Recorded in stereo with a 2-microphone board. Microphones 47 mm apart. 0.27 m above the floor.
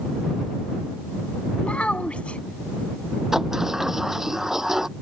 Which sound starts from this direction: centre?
A sliding door, at 3.3 s.